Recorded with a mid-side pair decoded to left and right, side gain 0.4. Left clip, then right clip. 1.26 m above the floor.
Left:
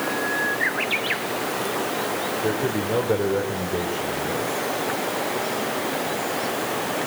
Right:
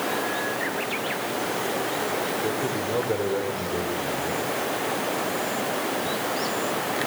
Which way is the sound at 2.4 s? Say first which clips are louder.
Left 2 dB; 30° left.